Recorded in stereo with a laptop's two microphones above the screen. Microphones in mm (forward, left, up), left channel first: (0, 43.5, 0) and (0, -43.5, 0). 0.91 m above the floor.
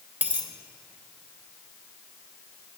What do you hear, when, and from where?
0.2 s a dropped coin: 20° right (ahead or behind), 0.8 m